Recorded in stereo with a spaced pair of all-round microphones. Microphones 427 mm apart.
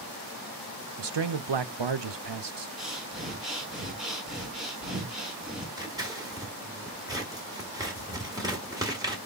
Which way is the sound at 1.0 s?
85° right.